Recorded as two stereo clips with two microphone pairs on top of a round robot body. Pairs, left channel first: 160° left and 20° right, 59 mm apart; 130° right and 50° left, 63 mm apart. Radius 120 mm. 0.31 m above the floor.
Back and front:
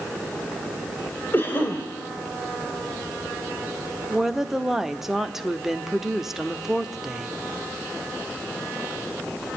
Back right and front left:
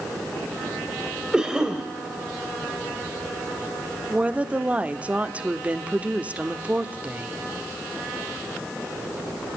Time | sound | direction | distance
1.3 | a cough | 125° left | 2.5 m
4.1 | a woman speaking | 90° left | 1.3 m